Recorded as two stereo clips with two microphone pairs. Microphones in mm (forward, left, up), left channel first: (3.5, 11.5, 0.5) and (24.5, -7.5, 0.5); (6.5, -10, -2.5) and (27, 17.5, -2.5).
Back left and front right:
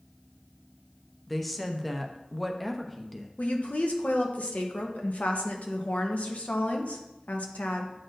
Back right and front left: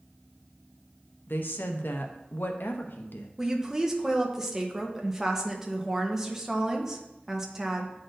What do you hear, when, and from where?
1.3 s a woman speaking: 140° right, 0.7 m
3.4 s a woman speaking: 125° left, 1.0 m